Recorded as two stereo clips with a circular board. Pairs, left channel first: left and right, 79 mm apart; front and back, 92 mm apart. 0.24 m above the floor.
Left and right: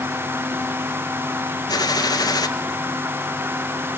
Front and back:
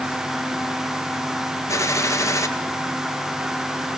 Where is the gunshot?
55° left, 1.3 m.